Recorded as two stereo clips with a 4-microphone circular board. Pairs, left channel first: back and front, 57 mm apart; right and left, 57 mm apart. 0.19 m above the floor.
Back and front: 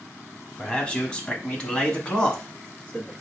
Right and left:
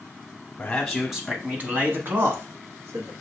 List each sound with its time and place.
0.6 s a man speaking: 125° right, 1.0 m; by 3.1 s 105° left, 2 m